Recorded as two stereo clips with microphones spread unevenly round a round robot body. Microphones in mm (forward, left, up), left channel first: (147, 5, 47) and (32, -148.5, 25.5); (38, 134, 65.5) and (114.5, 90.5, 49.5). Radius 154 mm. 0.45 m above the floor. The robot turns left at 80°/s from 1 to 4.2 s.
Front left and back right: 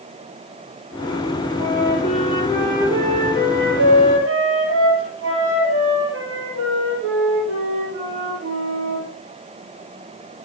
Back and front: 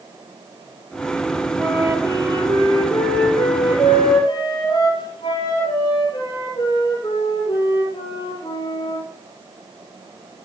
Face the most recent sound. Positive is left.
turn(degrees=-155)